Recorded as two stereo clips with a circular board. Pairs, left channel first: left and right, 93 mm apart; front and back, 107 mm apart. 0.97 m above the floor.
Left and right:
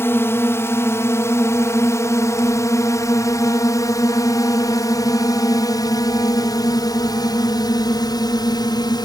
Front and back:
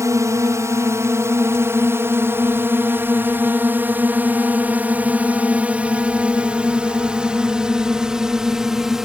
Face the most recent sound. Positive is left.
turn(degrees=95)